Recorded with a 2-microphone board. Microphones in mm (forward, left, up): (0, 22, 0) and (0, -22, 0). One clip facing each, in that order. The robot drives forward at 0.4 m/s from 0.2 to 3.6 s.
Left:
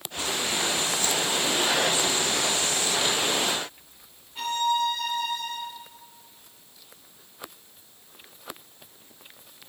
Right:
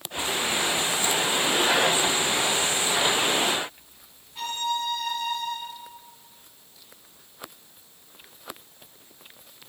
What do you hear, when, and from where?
4.3 s a violin: 5° left (ahead or behind), 2.5 m